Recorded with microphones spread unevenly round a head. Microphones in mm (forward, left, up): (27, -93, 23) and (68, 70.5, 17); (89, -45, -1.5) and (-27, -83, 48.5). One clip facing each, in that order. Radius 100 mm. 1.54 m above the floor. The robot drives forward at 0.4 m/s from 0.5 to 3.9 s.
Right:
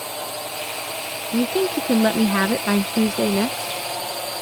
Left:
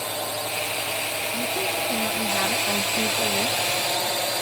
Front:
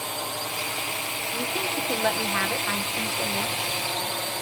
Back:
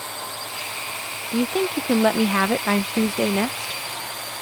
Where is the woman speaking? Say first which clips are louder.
Right 10 dB, back 10 dB; 115° right; by 3.8 s 140° right.